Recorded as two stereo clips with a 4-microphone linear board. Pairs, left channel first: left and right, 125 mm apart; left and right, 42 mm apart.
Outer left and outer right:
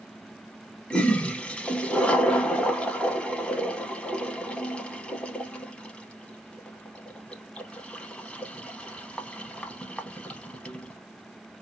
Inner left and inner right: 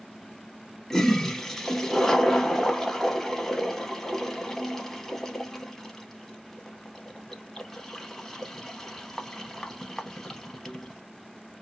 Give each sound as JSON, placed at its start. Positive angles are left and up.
{"t": 0.9, "sound": "a toilet flushing", "side_deg": 10, "distance_m": 0.6}